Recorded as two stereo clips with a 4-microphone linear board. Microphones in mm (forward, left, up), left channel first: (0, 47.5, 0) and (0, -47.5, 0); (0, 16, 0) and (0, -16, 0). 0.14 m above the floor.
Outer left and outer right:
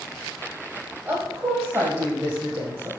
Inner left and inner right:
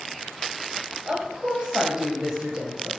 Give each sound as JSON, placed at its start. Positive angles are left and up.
{"t": 1.1, "sound": "a woman speaking", "side_deg": -30, "distance_m": 5.0}